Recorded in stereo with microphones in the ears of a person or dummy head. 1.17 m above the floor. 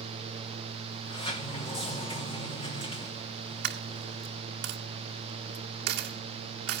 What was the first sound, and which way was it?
A sliding door, 30° left (ahead or behind).